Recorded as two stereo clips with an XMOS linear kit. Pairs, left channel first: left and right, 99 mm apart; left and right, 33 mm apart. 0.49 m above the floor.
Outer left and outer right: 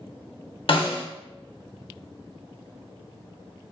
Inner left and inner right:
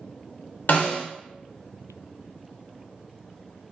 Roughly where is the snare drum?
Left.